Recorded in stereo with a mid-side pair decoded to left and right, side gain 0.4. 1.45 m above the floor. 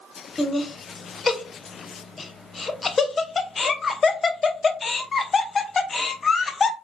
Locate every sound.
0.4 s laughter: 40° left, 0.7 m